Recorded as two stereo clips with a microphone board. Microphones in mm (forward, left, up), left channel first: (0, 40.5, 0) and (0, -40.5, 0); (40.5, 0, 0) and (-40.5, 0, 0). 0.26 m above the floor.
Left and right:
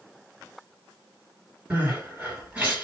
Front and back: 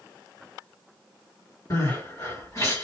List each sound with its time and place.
1.7 s crying: 20° right, 2 m